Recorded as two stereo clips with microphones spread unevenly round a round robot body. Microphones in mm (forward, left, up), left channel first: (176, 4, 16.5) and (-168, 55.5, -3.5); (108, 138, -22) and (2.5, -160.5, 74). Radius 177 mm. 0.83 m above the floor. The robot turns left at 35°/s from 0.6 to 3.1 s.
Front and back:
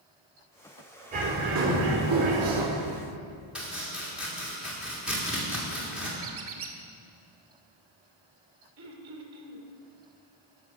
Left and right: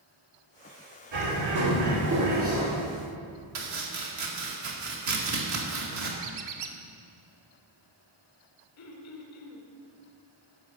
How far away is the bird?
About 3 m.